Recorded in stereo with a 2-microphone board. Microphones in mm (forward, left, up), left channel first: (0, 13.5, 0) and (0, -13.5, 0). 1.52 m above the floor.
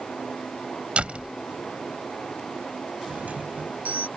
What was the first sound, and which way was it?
A door slam, 45° right (ahead or behind).